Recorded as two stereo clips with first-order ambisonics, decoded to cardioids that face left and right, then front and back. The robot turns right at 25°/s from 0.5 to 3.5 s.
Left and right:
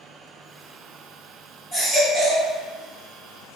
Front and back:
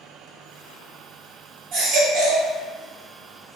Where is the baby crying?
160° left, 1.4 m; by 2.5 s straight behind, 1.4 m.